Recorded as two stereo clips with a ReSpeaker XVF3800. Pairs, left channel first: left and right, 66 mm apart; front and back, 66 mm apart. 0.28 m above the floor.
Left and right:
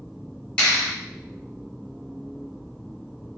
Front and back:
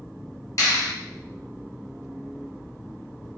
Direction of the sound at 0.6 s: 20° left.